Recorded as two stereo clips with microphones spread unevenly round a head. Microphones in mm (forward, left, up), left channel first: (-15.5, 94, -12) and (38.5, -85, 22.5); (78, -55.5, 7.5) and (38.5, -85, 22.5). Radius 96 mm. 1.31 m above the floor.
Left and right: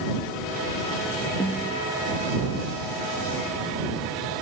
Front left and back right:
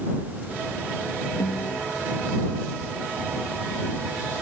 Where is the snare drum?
25° left.